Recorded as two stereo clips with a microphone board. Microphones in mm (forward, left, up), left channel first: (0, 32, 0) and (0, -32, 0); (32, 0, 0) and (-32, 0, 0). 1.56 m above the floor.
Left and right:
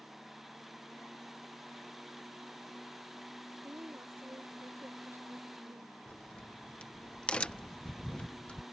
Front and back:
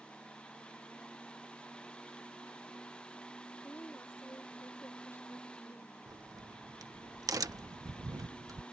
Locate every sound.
3.6 s a woman speaking: 45° right
6.1 s a crack: 160° left